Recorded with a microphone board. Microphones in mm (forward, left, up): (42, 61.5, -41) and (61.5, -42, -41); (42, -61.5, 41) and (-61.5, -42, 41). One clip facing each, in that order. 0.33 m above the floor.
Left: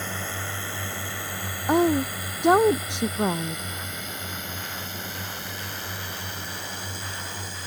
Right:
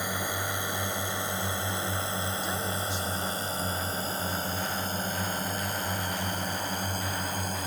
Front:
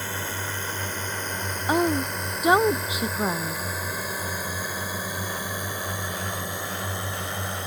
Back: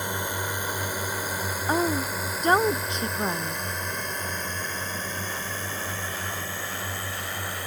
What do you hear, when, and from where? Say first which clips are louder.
0.0 s a drone: right 1 dB, back 2 dB; 140° right; by 7.7 s 70° right
1.7 s a woman speaking: left 12 dB, front 3 dB; 70° left